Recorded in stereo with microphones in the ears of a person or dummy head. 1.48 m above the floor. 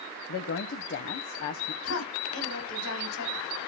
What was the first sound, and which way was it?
A woman speaking, 55° left (ahead or behind).